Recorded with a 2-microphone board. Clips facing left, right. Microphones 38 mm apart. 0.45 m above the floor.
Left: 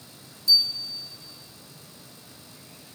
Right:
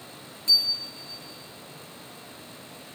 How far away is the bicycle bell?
About 5.5 m.